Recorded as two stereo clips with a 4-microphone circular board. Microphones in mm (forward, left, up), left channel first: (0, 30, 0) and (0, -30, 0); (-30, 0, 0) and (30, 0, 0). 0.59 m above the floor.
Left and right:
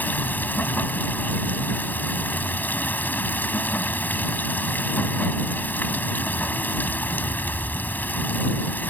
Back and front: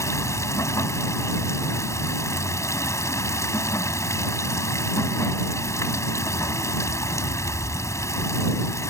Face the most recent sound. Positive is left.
turn(degrees=150)